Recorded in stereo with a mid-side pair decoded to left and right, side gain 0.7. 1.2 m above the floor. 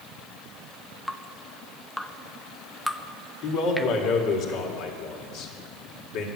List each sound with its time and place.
1.1 s dripping: straight ahead, 0.6 m
3.4 s a man speaking: 60° left, 2.5 m